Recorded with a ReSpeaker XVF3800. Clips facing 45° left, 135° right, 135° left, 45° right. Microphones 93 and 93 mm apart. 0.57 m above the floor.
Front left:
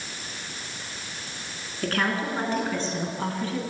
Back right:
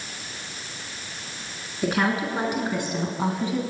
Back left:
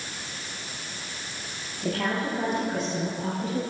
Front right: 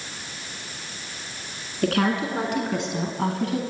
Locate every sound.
1.8 s a woman speaking: 55° right, 6 m; by 3.6 s 60° right, 4 m